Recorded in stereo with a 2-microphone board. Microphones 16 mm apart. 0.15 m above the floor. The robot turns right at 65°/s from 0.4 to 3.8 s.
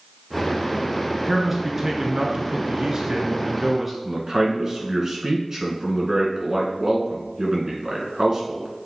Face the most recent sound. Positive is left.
turn(degrees=-35)  # may be behind; listen again after turning